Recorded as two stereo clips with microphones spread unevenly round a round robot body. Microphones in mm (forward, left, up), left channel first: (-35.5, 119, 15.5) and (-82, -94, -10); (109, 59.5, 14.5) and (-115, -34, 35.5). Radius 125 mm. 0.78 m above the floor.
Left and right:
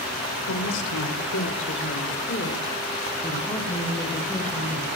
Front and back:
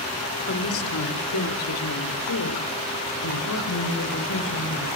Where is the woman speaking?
50° left, 3.5 m; by 4.9 s 10° right, 5 m.